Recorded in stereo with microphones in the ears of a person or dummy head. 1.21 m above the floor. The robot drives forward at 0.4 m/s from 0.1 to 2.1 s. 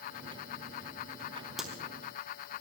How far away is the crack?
About 3.5 m.